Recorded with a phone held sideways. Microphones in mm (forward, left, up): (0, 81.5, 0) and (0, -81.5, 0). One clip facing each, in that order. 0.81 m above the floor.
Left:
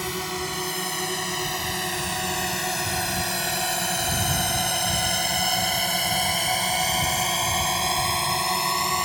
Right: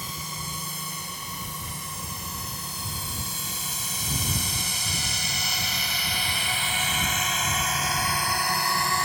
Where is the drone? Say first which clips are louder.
Left 9 dB; 75° left (ahead or behind); by 9.1 s 15° left (ahead or behind).